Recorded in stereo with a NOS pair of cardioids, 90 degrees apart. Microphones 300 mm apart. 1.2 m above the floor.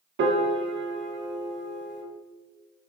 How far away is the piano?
About 0.6 m.